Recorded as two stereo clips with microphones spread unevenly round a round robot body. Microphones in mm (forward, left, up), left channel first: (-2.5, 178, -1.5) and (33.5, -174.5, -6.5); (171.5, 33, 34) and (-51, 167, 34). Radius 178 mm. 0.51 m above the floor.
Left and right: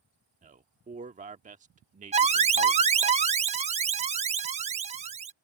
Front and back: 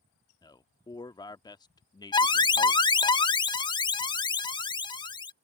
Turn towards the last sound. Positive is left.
turn(degrees=-60)